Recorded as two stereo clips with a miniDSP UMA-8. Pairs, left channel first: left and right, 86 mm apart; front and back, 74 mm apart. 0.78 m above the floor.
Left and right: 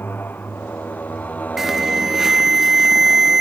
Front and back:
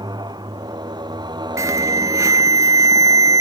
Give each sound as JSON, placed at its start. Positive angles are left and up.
{"t": 0.0, "sound": "a motorcycle", "azimuth_deg": 155}
{"t": 1.6, "sound": "an alarm", "azimuth_deg": -175}